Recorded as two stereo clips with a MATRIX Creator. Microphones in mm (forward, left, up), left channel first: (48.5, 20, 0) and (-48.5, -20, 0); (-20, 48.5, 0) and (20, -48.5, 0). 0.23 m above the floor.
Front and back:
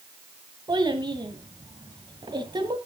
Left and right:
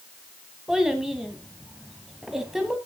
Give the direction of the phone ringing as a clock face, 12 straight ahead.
No phone ringing in this recording.